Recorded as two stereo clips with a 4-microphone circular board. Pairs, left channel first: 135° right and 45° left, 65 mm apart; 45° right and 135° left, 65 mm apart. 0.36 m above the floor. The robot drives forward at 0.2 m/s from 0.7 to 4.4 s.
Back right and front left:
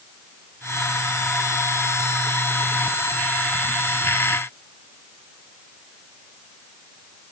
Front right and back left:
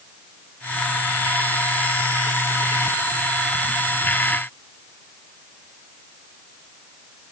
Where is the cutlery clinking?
No cutlery clinking in this recording.